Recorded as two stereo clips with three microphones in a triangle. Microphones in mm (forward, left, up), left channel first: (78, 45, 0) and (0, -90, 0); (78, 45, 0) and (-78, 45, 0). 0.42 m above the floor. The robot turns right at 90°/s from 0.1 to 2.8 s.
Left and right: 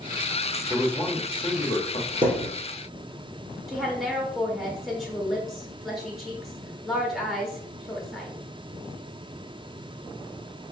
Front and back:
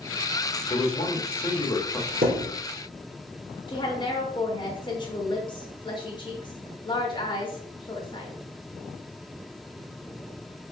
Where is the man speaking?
35° right, 1.1 m; by 2.1 s 90° left, 1.1 m.